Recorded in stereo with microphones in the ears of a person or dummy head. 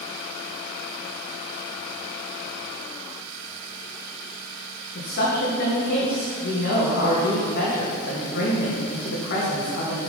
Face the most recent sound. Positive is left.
turn(degrees=60)  # may be behind; listen again after turning